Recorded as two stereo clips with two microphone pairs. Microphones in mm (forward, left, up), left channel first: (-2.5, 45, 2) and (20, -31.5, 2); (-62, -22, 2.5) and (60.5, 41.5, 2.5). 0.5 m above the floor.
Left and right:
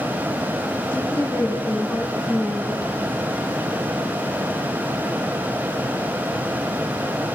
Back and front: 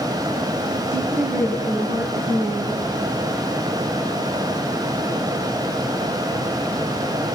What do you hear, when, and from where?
0.9 s a woman speaking: 45° left, 4.5 m